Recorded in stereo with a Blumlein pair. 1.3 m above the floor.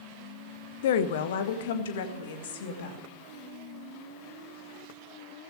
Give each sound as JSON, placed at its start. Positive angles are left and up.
{"t": 0.8, "sound": "a woman speaking", "azimuth_deg": 55, "distance_m": 1.1}